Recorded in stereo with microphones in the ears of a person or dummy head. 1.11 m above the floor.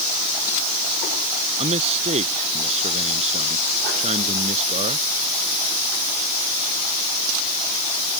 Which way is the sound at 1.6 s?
30° right (ahead or behind).